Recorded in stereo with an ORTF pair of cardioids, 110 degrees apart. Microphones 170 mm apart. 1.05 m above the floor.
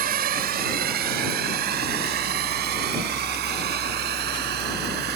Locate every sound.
0.0 s a drone: 60° right; by 5.2 s 75° right